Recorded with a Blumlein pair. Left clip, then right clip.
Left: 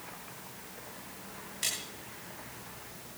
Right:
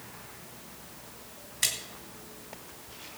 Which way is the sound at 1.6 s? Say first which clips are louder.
Right 4 dB; 70° right.